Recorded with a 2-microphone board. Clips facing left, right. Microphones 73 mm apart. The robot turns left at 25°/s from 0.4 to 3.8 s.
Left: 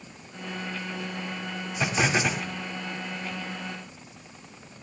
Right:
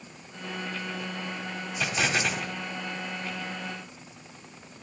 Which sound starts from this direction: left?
An explosion, at 1.8 s.